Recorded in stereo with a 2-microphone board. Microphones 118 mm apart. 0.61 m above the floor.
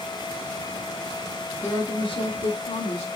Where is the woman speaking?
25° left (ahead or behind), 0.7 m; by 3.0 s 70° left (ahead or behind), 1.4 m.